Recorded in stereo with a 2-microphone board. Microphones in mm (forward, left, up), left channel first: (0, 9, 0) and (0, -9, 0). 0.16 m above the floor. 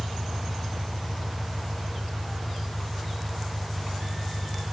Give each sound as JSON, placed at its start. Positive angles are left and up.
{"t": 0.0, "sound": "an engine running", "side_deg": -25, "distance_m": 3.0}